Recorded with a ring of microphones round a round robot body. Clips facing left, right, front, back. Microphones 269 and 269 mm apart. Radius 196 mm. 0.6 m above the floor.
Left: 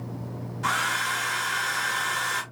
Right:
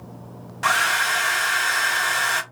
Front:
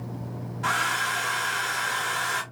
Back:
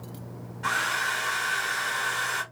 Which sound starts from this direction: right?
A hair dryer, at 0.6 s.